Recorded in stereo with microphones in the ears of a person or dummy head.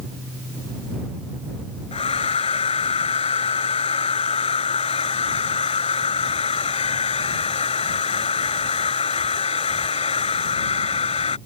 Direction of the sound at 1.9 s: 30° left (ahead or behind).